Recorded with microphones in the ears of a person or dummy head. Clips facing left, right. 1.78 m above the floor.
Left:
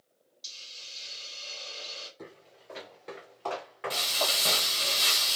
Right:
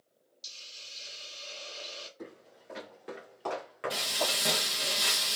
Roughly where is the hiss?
Right.